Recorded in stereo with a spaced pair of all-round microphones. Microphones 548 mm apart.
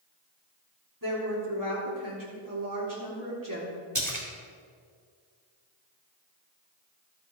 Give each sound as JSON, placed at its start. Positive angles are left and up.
{"t": 1.0, "sound": "a woman speaking", "side_deg": -35, "distance_m": 4.0}
{"t": 4.0, "sound": "a splash", "side_deg": -30, "distance_m": 2.0}